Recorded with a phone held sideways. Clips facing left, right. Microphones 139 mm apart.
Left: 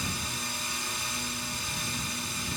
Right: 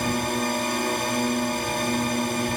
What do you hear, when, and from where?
0.0 s a drone: 65° right (ahead or behind)